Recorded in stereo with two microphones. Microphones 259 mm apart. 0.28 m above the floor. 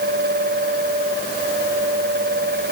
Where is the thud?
No thud in this recording.